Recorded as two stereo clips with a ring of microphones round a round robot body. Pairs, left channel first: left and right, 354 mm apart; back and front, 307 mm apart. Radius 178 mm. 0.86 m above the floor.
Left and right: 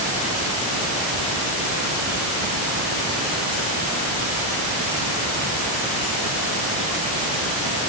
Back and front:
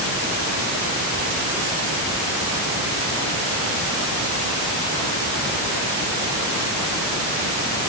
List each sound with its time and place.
Only background noise.